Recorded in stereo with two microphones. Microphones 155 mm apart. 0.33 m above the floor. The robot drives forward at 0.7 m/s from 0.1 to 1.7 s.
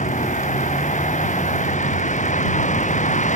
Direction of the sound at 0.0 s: 50° left (ahead or behind).